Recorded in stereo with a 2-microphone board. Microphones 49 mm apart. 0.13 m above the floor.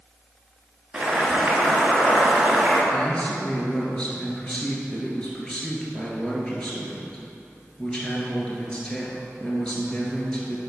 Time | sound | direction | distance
0.9 | boiling | 10° right (ahead or behind) | 1.4 m
2.9 | a man speaking | 20° left (ahead or behind) | 1.8 m